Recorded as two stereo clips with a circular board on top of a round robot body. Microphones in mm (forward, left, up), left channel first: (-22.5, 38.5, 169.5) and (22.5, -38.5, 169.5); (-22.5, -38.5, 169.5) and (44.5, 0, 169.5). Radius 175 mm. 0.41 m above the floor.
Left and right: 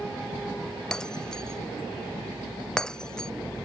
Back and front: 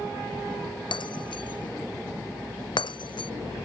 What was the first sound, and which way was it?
Breaking glass, 155° right.